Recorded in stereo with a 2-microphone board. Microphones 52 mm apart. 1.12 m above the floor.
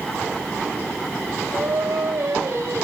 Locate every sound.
1.5 s singing: 65° right (ahead or behind), 4 m